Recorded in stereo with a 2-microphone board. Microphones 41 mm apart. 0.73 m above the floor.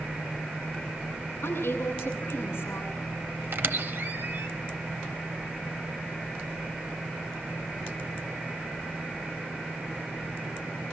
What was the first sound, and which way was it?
A woman speaking, 65° left (ahead or behind).